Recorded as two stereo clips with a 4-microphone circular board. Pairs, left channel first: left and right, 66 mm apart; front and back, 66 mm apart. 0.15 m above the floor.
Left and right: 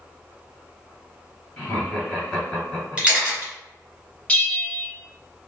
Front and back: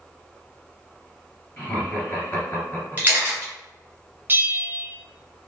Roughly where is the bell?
Behind left.